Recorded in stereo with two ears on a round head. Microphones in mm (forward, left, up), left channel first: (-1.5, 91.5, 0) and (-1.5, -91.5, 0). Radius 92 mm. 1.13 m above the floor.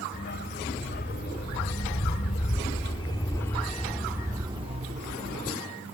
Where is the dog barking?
55° left (ahead or behind); by 5.6 s 50° right (ahead or behind).